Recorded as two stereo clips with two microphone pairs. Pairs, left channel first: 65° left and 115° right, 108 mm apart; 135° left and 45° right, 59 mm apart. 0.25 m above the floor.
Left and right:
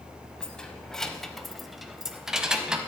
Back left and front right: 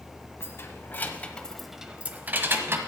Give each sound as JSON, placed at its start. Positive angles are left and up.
{"t": 0.4, "sound": "keys jangling", "azimuth_deg": 145, "distance_m": 1.1}